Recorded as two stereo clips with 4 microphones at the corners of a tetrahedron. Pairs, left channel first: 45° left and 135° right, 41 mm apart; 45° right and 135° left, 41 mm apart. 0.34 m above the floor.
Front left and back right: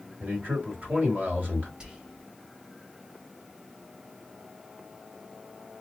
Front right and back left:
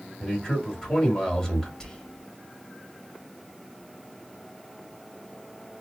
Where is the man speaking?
125° right, 1.8 m.